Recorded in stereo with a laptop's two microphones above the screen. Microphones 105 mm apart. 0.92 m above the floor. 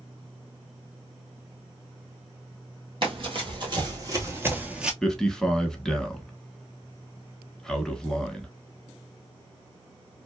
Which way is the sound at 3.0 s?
50° right (ahead or behind).